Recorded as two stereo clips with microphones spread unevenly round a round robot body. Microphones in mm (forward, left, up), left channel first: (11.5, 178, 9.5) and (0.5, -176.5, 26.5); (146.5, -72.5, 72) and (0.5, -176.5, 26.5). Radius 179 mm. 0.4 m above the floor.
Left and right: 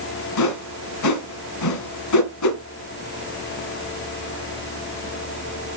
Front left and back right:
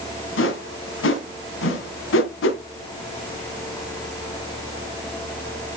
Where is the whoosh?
45° left, 2 m.